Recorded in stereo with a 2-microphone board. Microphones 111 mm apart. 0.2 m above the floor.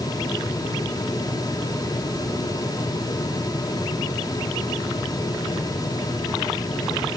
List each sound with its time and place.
Only background noise.